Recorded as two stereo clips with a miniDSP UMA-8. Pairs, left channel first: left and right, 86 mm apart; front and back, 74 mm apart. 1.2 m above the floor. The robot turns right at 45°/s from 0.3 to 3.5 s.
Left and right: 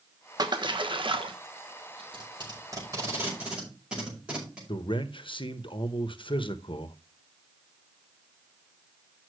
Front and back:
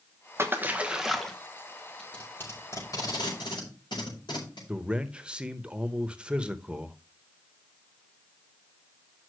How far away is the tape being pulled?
About 5.5 m.